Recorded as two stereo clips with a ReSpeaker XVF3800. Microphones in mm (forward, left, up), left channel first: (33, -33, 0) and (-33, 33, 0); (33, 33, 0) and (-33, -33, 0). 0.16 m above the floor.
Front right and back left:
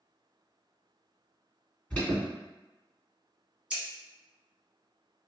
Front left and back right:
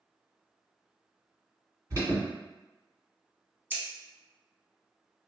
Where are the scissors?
165° right, 0.8 m.